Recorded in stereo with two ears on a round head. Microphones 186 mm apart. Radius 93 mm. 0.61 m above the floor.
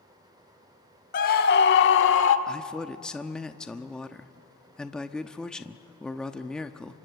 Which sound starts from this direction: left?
A scream, at 1.1 s.